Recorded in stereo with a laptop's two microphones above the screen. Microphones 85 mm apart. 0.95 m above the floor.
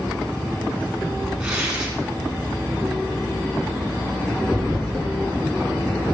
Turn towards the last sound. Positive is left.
turn(degrees=-5)  # may be behind; listen again after turning